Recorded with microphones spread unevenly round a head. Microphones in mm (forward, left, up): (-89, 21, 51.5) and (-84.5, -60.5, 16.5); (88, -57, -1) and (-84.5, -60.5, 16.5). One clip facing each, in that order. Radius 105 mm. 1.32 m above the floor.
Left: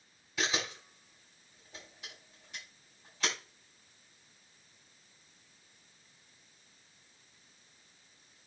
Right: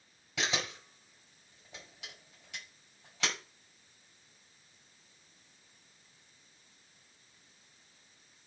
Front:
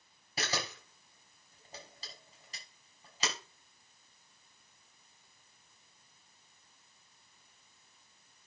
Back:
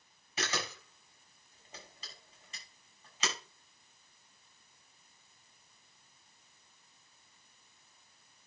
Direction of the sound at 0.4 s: 55° right.